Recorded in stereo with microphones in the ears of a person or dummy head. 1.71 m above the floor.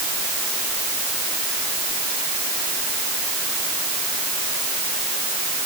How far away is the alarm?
I don't hear an alarm.